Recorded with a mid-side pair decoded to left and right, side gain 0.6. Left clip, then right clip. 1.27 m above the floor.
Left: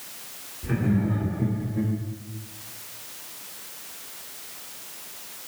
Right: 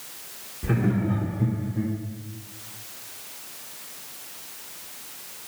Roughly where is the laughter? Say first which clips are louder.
Right 1 dB; ahead right.